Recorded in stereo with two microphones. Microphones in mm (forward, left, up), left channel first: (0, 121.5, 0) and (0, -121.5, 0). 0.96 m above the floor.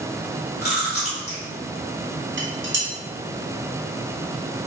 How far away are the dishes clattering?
About 0.6 m.